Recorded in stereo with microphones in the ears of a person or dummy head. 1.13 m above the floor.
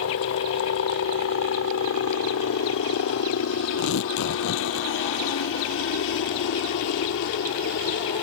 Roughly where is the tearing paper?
Left.